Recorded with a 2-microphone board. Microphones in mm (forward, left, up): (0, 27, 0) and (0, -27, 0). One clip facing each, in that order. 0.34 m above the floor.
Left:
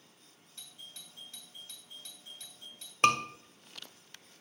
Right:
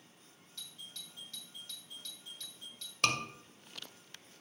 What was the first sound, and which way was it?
A doorbell, 20° left (ahead or behind).